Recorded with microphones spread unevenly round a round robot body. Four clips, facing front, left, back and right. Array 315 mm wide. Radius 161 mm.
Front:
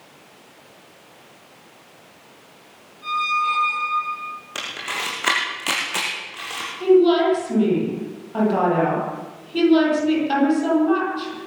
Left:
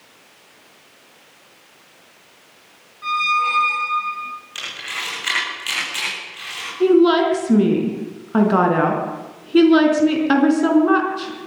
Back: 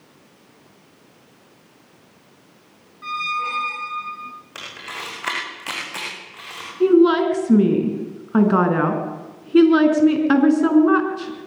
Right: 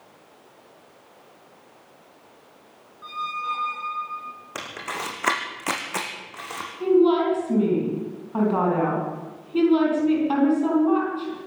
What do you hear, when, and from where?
3.0 s a squeak: 160° left, 2.5 m
4.5 s a camera shutter: 65° right, 5.5 m
6.8 s a woman speaking: 150° left, 4.5 m